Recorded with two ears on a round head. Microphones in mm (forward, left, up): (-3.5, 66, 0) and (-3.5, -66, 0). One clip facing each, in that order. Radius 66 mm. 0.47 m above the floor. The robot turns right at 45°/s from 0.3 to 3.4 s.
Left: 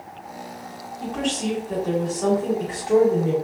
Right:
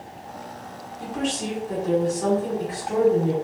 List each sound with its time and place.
1.0 s a woman speaking: 5° right (ahead or behind), 1.4 m; by 3.3 s 20° left (ahead or behind), 1.4 m